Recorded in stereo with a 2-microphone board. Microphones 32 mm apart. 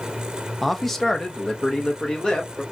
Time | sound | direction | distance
0.6 | a man speaking | centre (ahead or behind) | 0.5 m